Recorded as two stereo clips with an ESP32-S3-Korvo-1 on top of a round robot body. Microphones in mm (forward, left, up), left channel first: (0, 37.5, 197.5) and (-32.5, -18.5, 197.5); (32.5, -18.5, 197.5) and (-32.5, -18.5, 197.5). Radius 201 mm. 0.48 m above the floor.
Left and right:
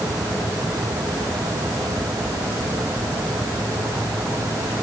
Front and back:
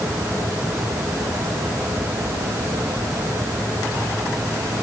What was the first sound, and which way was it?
Only background noise.